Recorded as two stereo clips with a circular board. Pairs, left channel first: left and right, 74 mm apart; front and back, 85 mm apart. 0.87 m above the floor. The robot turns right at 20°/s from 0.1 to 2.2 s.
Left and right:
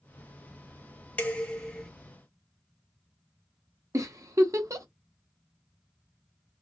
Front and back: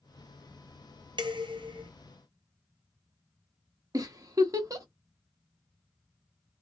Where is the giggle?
130° right, 0.9 m.